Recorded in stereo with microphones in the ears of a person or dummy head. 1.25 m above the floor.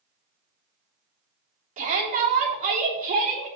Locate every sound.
1.8 s a shout: 40° right (ahead or behind), 4 m